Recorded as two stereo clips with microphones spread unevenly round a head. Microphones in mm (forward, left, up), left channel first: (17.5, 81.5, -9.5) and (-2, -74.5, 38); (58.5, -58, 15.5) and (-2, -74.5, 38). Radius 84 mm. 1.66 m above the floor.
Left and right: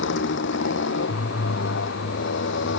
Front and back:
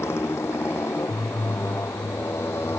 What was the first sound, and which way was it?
A motorcycle, 85° left.